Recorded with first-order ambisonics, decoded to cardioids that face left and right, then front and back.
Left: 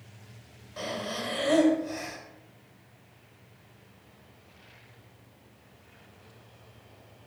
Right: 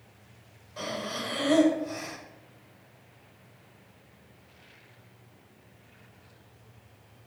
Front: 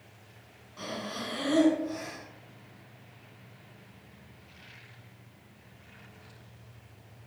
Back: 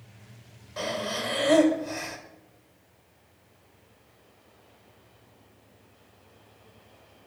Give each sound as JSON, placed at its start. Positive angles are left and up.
{"t": 0.8, "sound": "breathing", "azimuth_deg": 170, "distance_m": 1.9}